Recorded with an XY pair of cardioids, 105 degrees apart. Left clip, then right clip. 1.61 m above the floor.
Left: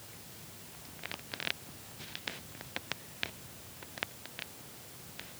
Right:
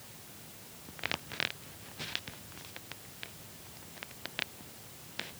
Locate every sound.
Only background noise.